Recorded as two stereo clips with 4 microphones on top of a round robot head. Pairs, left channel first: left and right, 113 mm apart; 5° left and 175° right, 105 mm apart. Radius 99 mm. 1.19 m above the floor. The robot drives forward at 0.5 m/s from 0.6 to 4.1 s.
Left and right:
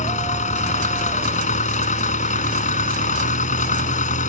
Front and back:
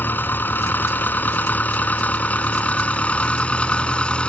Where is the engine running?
80° left; by 4.3 s 85° left.